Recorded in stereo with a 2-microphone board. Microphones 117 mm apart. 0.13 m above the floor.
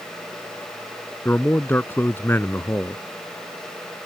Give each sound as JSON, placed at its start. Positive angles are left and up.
{"t": 1.2, "sound": "a man speaking", "side_deg": 20}